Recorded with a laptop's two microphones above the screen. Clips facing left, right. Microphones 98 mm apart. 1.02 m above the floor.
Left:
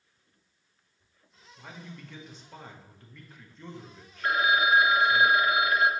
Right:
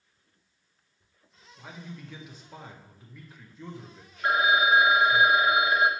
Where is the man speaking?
5° right (ahead or behind), 0.8 m.